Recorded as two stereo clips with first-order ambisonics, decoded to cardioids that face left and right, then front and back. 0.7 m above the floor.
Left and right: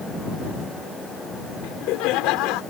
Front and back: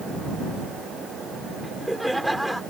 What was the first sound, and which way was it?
Laughter, 95° left.